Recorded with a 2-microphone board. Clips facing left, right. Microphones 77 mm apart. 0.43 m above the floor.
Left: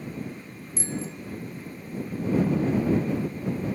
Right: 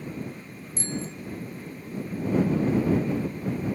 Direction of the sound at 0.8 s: 5° left (ahead or behind).